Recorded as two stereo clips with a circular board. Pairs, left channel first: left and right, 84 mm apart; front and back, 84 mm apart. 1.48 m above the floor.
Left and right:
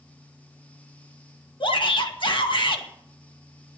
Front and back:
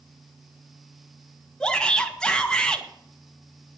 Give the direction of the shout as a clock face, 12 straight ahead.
9 o'clock.